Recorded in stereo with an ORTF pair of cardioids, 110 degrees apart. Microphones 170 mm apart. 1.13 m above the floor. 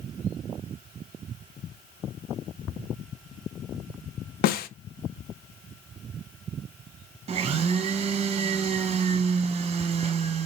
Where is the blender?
35° right, 0.8 m.